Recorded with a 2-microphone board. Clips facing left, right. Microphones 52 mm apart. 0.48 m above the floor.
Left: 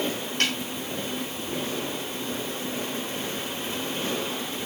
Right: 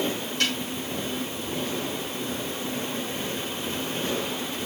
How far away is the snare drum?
About 5 m.